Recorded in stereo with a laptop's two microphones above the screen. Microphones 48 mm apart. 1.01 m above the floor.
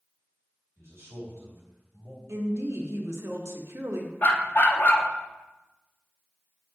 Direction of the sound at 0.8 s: 60° right (ahead or behind).